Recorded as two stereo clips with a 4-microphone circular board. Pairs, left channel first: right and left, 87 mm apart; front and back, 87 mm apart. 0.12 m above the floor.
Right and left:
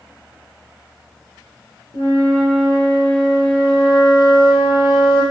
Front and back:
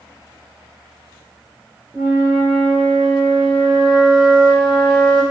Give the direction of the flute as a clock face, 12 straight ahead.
3 o'clock.